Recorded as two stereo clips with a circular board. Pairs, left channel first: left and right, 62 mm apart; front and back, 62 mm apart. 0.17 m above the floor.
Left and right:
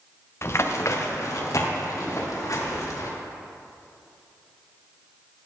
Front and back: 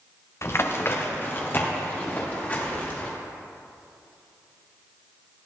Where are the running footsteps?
45° left, 1.4 m; by 3.1 s 60° left, 5 m.